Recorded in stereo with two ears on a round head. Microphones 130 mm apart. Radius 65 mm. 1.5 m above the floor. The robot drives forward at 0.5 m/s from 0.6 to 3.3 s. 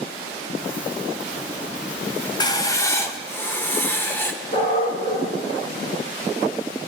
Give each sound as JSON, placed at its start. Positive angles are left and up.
{"t": 2.4, "sound": "writing", "side_deg": 25, "distance_m": 0.5}
{"t": 4.5, "sound": "a dog barking", "side_deg": 40, "distance_m": 4.5}